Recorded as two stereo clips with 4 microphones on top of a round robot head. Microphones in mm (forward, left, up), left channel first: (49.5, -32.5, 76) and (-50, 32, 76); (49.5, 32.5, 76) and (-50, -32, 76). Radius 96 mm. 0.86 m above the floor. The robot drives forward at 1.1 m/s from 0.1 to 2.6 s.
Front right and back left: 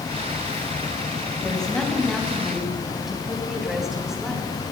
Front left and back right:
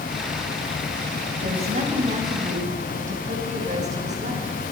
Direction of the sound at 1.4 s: 115° right.